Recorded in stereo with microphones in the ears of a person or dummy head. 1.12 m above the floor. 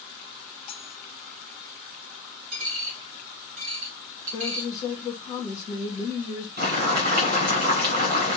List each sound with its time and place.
0.7 s cutlery clinking: 35° left (ahead or behind), 0.6 m
2.5 s a dropped coin: 50° right (ahead or behind), 1.0 m
4.3 s a woman speaking: 20° left (ahead or behind), 1.3 m
6.6 s boiling: 50° right (ahead or behind), 1.7 m